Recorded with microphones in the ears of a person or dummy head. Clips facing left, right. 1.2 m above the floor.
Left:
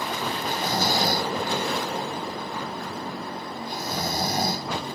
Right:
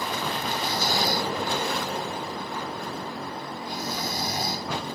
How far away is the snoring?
About 0.5 m.